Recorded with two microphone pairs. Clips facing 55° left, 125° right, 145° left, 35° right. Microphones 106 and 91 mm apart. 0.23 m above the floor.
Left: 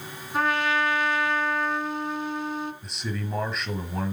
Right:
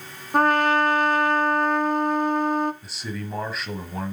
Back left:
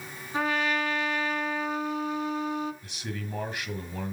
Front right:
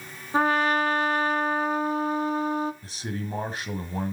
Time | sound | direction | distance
0.3 | a trumpet | 85° right | 0.6 m
2.8 | a man speaking | 40° right | 1.2 m